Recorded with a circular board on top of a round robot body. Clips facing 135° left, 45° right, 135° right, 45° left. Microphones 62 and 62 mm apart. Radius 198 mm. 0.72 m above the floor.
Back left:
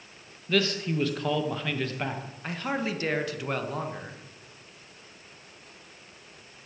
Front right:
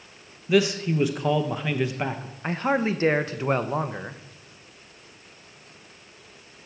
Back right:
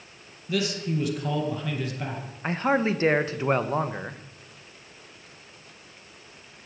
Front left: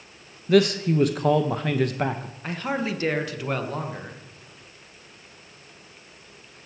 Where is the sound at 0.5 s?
25° left, 1.0 m.